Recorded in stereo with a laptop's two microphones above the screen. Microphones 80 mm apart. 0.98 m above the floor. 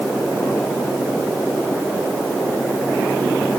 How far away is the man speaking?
I don't hear a man speaking.